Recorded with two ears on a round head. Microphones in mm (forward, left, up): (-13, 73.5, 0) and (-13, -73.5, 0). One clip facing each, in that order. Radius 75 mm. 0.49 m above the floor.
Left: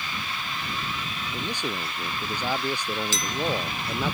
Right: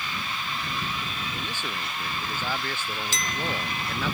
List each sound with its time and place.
1.3 s a man speaking: 15° left (ahead or behind)
3.1 s a clink: 80° left